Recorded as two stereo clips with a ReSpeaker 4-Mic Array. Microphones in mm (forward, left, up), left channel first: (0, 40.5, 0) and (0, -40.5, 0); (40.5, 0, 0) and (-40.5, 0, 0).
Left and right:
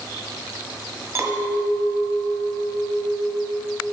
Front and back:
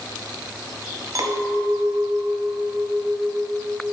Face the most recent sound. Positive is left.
turn(degrees=-145)